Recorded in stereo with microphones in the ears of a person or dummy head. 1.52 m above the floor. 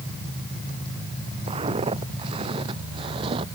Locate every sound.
1.5 s footsteps: 35° right (ahead or behind)